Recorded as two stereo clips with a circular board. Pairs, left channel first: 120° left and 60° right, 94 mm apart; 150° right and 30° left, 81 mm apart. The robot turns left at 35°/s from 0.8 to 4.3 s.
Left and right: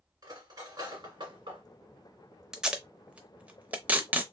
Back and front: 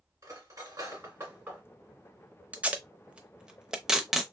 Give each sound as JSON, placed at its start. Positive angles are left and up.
{"t": 0.2, "sound": "cutlery clinking", "azimuth_deg": -20, "distance_m": 1.9}
{"t": 2.5, "sound": "tape being pulled", "azimuth_deg": 10, "distance_m": 0.6}